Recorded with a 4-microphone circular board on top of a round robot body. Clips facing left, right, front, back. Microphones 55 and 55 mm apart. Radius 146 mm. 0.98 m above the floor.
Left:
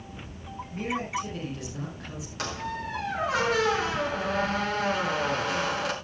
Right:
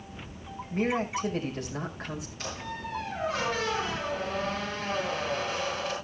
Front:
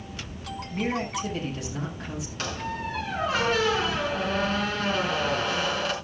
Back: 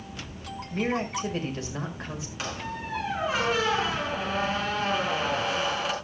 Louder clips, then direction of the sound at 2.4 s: Left 8 dB, front 3 dB; 100° left.